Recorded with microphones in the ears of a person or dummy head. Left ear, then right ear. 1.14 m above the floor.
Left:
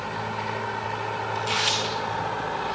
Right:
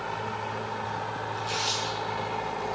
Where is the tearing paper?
20° left (ahead or behind), 0.7 m.